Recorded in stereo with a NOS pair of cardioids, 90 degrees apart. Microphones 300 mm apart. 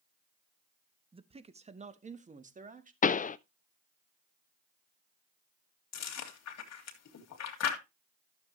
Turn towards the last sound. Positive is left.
turn(degrees=65)